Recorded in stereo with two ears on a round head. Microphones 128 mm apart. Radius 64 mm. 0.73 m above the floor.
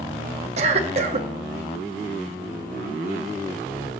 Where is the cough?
45° right (ahead or behind), 1.1 m.